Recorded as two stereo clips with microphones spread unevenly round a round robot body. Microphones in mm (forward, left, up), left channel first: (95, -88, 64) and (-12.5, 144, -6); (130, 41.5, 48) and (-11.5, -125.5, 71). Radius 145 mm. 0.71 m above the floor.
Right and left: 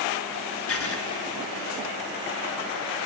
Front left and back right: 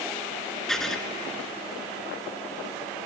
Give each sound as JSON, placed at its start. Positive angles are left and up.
{"t": 0.7, "sound": "writing", "azimuth_deg": -40, "distance_m": 1.8}